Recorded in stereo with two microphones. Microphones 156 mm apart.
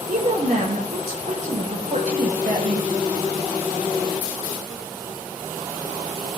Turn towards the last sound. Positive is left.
turn(degrees=-60)  # may be behind; listen again after turning